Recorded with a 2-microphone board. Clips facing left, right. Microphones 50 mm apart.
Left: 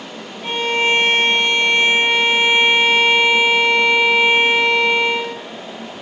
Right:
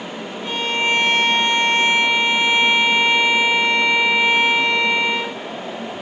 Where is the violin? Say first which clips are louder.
Left 3 dB; 35° left (ahead or behind), 5 m.